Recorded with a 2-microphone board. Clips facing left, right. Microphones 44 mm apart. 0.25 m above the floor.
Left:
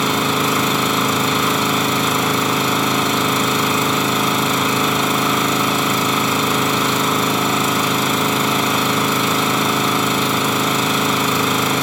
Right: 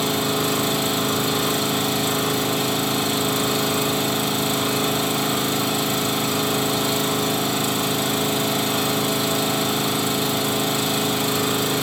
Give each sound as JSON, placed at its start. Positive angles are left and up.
{"t": 0.0, "sound": "an engine running", "side_deg": 65, "distance_m": 1.0}